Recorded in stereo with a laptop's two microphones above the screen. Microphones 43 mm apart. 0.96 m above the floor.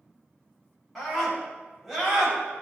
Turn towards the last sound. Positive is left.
turn(degrees=-5)  # may be behind; listen again after turning